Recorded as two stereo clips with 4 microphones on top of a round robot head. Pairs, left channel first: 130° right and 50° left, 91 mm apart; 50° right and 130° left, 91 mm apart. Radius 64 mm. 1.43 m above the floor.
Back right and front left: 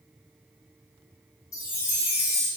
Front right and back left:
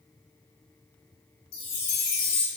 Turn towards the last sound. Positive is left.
turn(degrees=-75)